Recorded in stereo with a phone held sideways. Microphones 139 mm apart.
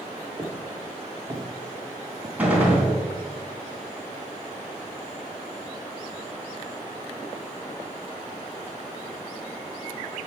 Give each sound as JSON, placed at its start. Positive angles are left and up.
{"t": 0.4, "sound": "footsteps", "side_deg": -20, "distance_m": 3.0}
{"t": 2.4, "sound": "a gunshot", "side_deg": -10, "distance_m": 3.0}